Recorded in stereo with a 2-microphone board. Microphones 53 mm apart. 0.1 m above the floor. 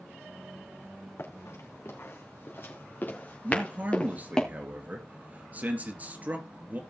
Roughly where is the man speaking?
Right.